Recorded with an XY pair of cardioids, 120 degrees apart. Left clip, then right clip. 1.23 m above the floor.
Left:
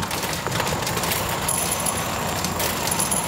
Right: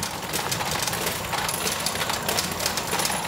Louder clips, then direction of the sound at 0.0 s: Left 3 dB; 30° left.